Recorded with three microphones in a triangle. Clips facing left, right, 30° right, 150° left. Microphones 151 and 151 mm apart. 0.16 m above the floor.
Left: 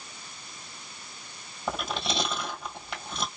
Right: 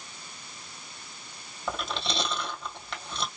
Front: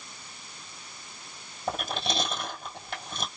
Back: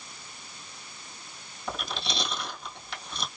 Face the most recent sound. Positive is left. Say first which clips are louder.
# left 2 dB, front 4 dB
turn(degrees=10)